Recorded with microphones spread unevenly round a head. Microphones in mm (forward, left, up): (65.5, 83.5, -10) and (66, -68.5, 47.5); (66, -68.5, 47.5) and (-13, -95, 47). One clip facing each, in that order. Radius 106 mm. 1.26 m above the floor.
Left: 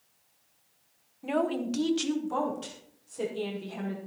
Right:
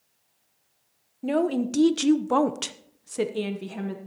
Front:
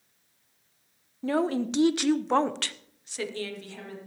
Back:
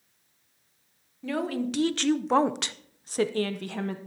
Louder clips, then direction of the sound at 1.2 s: Right 5 dB, front 3 dB; 35° right.